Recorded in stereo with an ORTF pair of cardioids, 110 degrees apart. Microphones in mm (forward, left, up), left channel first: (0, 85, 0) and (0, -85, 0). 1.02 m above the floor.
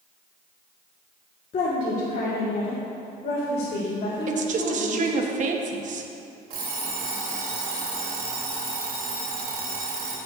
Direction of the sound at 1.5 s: 50° left.